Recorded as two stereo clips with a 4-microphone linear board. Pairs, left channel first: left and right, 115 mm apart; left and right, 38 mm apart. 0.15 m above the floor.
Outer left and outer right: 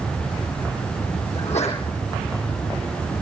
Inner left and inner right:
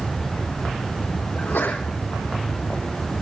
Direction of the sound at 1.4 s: 70° left (ahead or behind).